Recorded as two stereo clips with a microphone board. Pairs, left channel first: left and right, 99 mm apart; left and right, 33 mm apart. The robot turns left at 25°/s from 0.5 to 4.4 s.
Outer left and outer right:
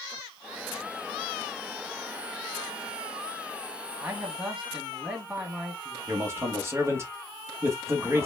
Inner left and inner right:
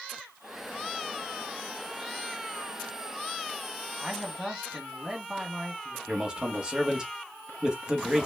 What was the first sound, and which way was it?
A man speaking, 15° right (ahead or behind).